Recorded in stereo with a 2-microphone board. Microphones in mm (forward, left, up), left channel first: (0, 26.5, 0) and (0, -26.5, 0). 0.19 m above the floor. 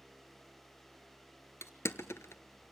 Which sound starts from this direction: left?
Crushing, at 1.6 s.